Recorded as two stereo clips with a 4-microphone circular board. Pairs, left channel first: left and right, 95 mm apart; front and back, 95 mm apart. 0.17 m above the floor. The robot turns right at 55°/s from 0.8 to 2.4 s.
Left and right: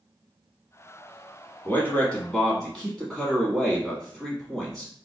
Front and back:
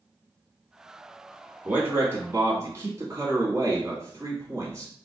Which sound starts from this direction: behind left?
A man speaking, at 1.6 s.